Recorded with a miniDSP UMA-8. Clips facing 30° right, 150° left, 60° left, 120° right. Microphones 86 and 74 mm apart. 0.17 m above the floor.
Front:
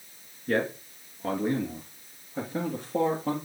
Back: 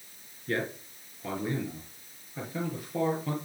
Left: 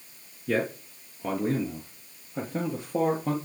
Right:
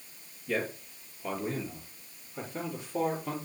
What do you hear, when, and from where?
0.5 s a man speaking: 30° left, 3 m